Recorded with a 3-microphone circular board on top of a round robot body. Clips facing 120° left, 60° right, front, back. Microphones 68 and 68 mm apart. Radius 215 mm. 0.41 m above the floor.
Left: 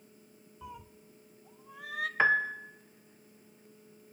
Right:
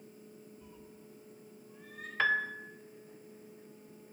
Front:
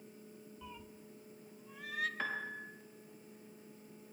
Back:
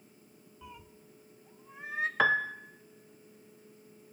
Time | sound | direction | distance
0.6 | a cat meowing | 95° left | 0.7 m
2.2 | a piano | 170° right | 0.9 m